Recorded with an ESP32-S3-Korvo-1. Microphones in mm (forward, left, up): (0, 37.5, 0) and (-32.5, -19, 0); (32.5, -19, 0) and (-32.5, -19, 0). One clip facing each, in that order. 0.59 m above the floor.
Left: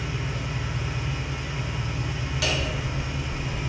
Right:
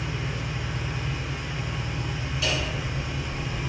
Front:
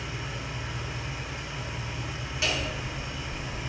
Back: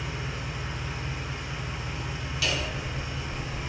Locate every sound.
0.0 s an engine running: 140° left, 1.1 m
2.4 s hammering: 60° left, 0.7 m